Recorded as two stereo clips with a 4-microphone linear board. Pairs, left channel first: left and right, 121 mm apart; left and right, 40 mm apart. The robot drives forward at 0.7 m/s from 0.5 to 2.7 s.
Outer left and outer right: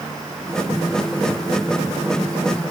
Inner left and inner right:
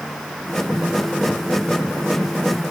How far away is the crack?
I don't hear a crack.